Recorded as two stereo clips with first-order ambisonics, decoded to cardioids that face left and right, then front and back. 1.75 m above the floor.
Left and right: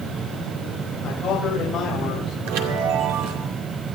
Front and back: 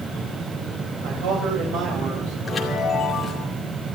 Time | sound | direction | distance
1.0 | a man speaking | 160° left | 3.5 m
2.5 | a chime | 80° right | 2.5 m